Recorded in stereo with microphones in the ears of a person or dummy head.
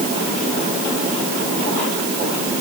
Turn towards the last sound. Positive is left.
No sound to turn to.